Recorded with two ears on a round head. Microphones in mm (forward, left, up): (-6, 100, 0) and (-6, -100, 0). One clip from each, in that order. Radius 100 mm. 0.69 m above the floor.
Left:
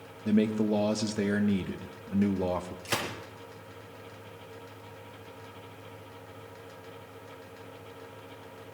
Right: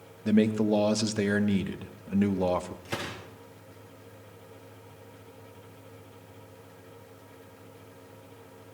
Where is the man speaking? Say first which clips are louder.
Right 2 dB; 15° right (ahead or behind), 0.9 m.